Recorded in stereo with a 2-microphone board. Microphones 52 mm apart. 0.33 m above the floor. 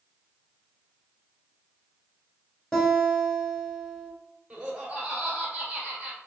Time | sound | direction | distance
2.7 | a guitar | 10° left (ahead or behind) | 1.3 m
4.5 | laughter | 20° right (ahead or behind) | 1.5 m